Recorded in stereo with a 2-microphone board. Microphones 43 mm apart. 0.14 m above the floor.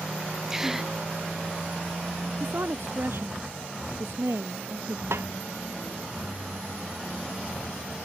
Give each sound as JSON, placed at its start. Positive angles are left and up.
{"t": 0.5, "sound": "a gasp", "side_deg": -10}
{"t": 2.4, "sound": "a woman speaking", "side_deg": -70}
{"t": 5.1, "sound": "a snare drum", "side_deg": -85}